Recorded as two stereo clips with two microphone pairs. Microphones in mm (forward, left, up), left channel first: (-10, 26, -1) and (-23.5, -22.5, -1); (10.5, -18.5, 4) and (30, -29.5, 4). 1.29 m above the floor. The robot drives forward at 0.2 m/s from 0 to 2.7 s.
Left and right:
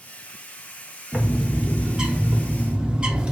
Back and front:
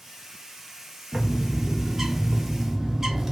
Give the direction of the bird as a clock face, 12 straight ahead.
1 o'clock.